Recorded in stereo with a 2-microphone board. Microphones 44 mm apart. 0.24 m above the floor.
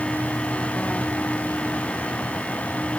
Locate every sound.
Only background noise.